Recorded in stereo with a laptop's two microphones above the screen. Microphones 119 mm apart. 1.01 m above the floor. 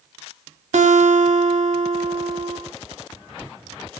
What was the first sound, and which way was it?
A guitar, 80° right.